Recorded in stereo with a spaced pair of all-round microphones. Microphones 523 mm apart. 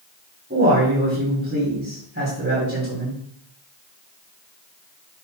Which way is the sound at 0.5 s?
20° right (ahead or behind).